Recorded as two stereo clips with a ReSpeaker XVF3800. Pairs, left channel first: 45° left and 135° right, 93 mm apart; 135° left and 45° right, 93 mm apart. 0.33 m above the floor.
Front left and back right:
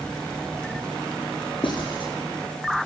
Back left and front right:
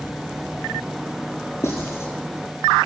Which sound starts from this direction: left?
Writing, at 1.6 s.